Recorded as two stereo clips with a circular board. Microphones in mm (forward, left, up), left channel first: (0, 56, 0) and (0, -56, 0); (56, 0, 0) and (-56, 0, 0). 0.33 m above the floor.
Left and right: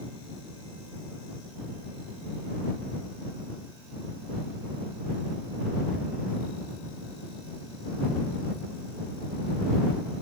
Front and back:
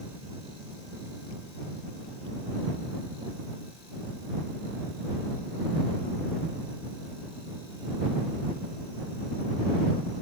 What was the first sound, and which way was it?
Only background noise.